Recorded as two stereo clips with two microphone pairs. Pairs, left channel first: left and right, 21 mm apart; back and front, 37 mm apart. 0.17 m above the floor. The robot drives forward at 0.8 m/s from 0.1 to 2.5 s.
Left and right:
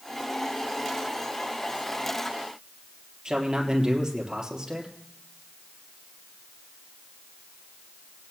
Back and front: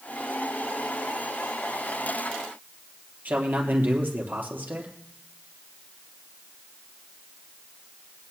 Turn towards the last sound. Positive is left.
turn(degrees=-35)